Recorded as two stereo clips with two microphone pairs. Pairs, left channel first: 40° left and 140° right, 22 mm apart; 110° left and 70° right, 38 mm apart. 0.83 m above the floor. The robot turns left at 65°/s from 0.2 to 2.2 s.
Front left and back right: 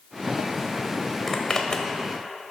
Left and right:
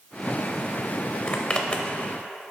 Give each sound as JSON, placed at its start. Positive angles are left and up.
{"t": 1.3, "sound": "a zipper", "azimuth_deg": 110, "distance_m": 0.6}